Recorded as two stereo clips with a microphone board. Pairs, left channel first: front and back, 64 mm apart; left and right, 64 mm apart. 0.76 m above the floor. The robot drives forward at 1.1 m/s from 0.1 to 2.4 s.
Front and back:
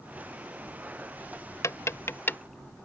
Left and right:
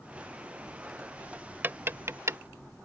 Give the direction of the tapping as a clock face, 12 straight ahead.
1 o'clock.